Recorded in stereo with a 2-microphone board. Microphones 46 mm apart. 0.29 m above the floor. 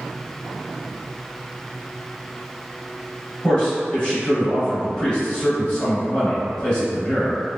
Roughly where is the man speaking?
Centre.